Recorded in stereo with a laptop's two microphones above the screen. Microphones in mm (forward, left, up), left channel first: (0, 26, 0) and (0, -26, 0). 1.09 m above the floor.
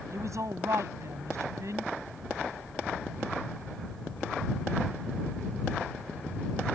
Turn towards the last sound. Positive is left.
turn(degrees=-70)  # may be behind; listen again after turning